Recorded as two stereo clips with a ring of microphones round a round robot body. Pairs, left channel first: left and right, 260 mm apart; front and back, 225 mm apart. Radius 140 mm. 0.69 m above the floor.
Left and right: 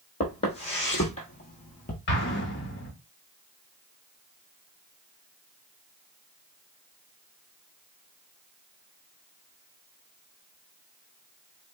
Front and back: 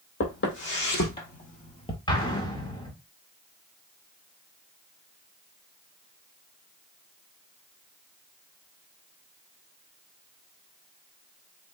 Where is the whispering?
No whispering in this recording.